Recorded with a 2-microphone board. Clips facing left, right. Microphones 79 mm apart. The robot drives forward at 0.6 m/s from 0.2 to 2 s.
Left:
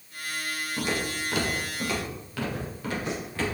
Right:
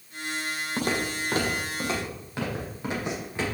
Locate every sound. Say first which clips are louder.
0.8 s footsteps: right 2 dB; 55° right (ahead or behind), 3.5 m; by 3.5 s 20° right (ahead or behind), 6.5 m